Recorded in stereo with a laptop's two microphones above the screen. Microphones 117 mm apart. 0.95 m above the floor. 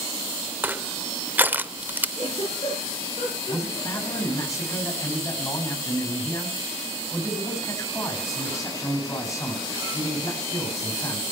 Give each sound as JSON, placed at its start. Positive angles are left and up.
{"t": 0.6, "sound": "crushing", "side_deg": -15, "distance_m": 0.7}
{"t": 2.2, "sound": "a giggle", "side_deg": 50, "distance_m": 9.0}
{"t": 3.5, "sound": "a man speaking", "side_deg": 25, "distance_m": 6.0}